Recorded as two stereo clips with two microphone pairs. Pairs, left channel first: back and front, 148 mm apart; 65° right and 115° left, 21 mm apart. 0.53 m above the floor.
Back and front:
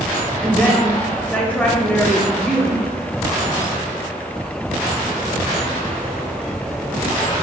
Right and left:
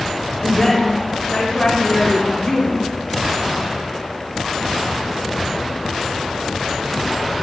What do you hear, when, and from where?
0.4 s a woman speaking: 100° right, 1.8 m